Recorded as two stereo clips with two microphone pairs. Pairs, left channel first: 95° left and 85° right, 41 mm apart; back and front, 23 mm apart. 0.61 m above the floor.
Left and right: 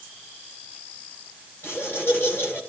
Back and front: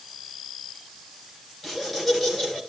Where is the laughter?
85° left, 4.5 m.